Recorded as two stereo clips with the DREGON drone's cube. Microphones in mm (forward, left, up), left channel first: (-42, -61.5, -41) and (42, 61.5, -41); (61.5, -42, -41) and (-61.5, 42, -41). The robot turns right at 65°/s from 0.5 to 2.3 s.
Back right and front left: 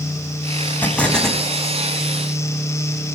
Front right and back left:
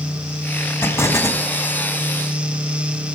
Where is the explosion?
75° right, 1.3 m; by 1.4 s 30° right, 1.3 m.